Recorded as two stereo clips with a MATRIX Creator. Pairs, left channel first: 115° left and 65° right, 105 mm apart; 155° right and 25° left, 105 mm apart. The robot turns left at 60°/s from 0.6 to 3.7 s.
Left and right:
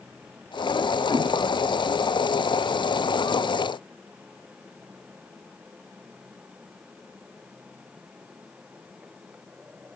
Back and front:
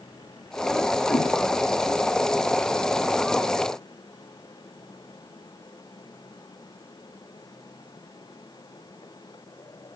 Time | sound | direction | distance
1.1 | a whoosh | 120° right | 3 m